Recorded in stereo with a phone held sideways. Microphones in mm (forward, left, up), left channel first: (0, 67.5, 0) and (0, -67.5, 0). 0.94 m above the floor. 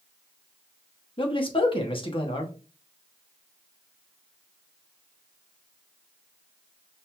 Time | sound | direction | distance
1.2 | a man speaking | 40° left (ahead or behind) | 1.0 m